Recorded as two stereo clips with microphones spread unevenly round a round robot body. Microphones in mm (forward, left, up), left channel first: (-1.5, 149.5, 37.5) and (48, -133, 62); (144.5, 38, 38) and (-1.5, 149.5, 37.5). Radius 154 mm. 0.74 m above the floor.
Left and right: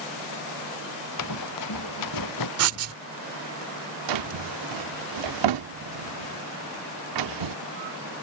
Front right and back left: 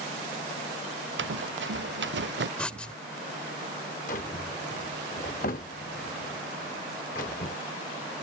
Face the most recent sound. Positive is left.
turn(degrees=-100)